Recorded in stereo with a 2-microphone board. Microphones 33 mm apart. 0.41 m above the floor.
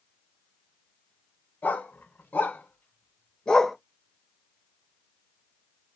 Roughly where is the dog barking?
Left.